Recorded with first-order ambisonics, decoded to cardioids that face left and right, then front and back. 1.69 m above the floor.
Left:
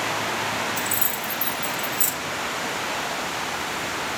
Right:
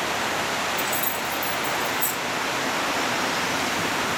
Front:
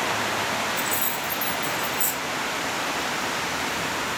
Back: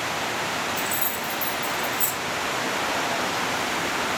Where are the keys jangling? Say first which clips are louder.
Right 1 dB, front 1 dB; 95° left, 5.5 m; by 2.1 s 90° left, 5 m.